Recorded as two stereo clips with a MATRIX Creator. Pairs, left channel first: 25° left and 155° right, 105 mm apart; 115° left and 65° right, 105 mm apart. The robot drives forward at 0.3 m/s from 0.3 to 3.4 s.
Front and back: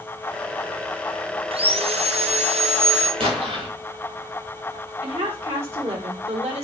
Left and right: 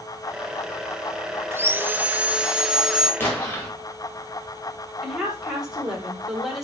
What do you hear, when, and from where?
1.5 s sawing: 135° right, 0.6 m; by 3.1 s 155° right, 1.0 m
3.2 s an explosion: straight behind, 3 m
5.0 s a woman speaking: 155° right, 3.5 m